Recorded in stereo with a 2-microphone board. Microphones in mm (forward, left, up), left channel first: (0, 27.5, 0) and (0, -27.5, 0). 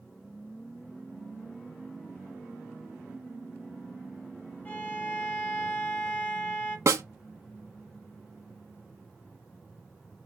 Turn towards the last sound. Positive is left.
turn(degrees=-75)  # may be behind; listen again after turning